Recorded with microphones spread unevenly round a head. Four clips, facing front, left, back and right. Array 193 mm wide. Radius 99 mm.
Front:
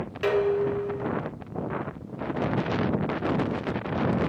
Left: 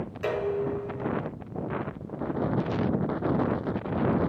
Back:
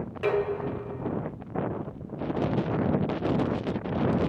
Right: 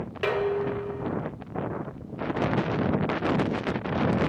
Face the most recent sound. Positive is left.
turn(degrees=-60)